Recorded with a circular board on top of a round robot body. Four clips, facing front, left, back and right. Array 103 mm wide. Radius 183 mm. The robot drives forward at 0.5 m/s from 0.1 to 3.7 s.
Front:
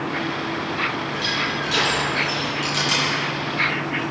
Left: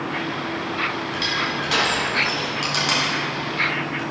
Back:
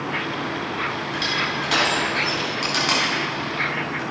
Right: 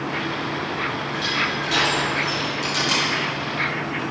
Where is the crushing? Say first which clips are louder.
Even, even; 130° left, 3 m; by 4.0 s 145° left, 4 m.